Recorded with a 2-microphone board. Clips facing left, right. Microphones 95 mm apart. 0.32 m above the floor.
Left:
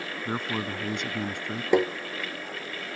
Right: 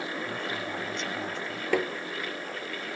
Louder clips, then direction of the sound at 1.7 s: Left 5 dB; 20° left (ahead or behind).